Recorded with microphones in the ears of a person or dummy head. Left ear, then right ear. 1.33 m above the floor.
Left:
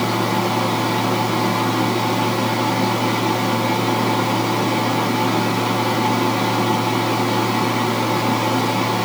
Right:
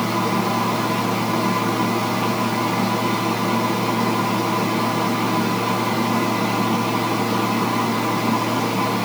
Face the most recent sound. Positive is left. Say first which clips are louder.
# left 1 dB
turn(degrees=10)  # may be behind; listen again after turning